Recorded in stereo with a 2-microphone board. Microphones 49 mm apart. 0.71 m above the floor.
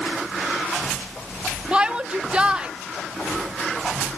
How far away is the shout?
About 1.0 m.